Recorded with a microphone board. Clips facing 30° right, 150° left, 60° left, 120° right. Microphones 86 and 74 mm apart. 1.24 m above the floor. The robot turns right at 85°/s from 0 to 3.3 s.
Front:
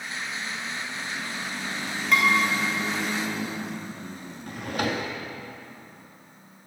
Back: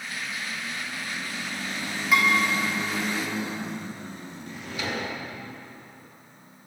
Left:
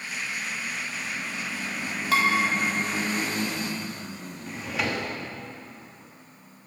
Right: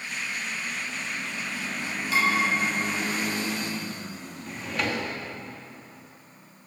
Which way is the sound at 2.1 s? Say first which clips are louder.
Even, left 2 dB; 65° left.